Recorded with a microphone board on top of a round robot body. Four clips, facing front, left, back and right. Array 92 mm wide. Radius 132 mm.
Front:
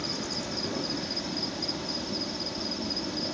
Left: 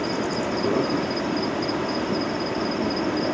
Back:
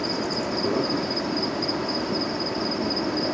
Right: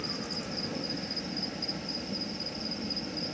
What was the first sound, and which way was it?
An insect, 120° left.